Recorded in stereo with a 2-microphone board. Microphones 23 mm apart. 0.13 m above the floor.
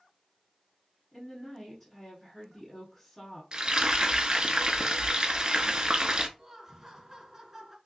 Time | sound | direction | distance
1.1 | a woman speaking | 20° left (ahead or behind) | 1.2 m
3.5 | frying | 40° right (ahead or behind) | 0.8 m
6.4 | laughter | 20° right (ahead or behind) | 1.7 m